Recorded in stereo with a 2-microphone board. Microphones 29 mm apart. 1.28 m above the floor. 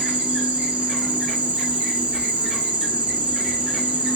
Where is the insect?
30° right (ahead or behind), 1.3 m.